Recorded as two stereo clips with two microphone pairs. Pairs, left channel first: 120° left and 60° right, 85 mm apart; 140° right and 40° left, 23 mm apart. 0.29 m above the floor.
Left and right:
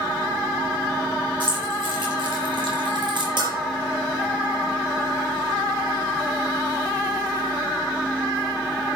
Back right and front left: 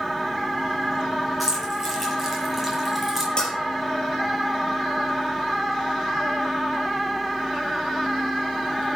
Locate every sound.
1.4 s keys jangling: 45° right, 5.5 m; by 3.3 s 40° right, 3 m
3.4 s a bell: 85° right, 5.5 m